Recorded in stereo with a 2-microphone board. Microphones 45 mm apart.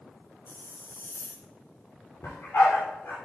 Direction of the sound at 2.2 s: 65° left (ahead or behind).